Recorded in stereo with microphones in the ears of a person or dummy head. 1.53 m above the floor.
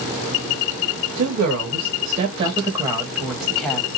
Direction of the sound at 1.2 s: 60° right (ahead or behind).